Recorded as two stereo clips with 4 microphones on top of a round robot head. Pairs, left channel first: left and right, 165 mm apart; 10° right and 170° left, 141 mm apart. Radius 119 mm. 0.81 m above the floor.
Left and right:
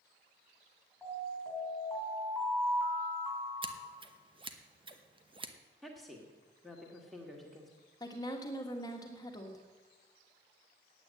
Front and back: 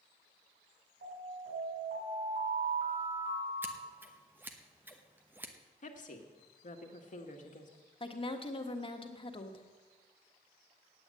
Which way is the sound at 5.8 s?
Straight ahead.